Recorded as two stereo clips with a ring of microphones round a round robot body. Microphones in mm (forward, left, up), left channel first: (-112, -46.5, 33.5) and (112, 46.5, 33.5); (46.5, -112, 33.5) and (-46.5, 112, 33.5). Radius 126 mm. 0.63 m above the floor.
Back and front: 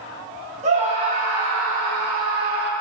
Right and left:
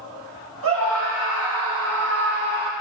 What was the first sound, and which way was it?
A scream, 85° left.